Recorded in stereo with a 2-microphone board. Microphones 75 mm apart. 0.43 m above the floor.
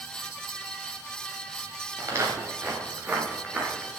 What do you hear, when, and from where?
2.0 s footsteps: 40° right (ahead or behind), 5 m; by 3.9 s 15° right (ahead or behind), 5 m